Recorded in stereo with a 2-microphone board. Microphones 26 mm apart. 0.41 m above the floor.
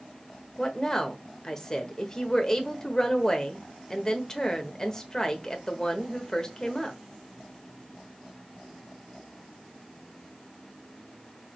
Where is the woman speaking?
20° left (ahead or behind), 1.1 m.